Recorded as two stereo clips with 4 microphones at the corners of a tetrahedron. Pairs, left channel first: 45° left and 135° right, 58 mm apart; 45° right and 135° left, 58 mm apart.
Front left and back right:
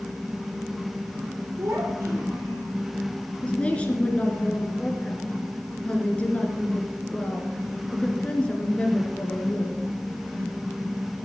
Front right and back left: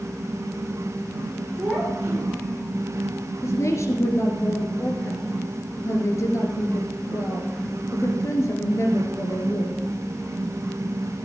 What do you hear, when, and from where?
1.6 s a child speaking: 160° right, 4.5 m
3.4 s a woman speaking: 20° right, 2.5 m